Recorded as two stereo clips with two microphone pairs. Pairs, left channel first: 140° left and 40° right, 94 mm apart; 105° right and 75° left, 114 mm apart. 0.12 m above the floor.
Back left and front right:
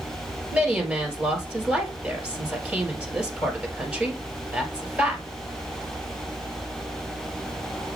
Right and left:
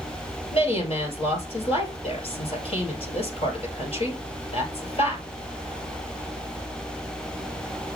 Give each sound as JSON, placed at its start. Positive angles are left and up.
{"t": 0.5, "sound": "a woman speaking", "azimuth_deg": -110, "distance_m": 2.0}